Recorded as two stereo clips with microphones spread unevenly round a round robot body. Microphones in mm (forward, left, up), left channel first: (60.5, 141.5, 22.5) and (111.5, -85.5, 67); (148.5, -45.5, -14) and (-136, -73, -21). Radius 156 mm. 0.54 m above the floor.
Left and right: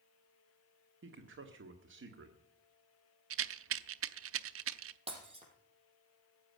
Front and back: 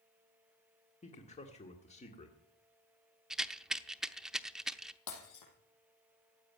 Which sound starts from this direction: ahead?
Breaking glass, at 5.1 s.